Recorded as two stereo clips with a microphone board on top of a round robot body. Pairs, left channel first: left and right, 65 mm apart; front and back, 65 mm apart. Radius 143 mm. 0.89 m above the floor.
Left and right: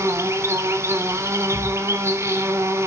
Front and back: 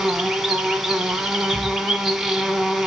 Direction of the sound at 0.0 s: 95° right.